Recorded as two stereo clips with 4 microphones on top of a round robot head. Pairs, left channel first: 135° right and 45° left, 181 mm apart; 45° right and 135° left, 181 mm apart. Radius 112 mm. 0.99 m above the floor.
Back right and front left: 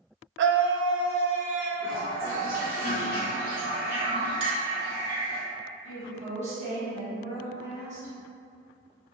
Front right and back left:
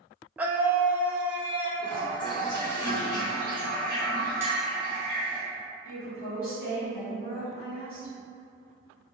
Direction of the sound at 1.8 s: 20° left.